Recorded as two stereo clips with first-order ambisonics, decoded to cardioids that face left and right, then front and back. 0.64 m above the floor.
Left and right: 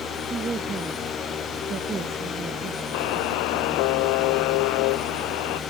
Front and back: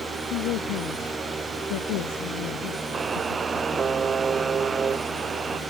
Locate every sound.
0.3 s a woman speaking: 20° right
2.9 s a buzzer: 105° left